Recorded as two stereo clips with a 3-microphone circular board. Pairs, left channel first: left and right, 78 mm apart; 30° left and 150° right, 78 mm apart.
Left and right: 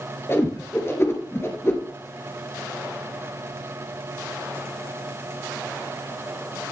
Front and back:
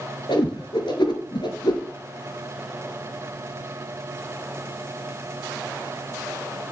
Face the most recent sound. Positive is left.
turn(degrees=35)